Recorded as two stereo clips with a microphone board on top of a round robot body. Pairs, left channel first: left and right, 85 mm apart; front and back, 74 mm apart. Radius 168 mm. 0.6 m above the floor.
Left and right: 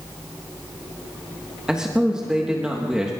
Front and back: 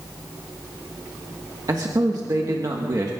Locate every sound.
1.7 s a man speaking: 170° right, 1.6 m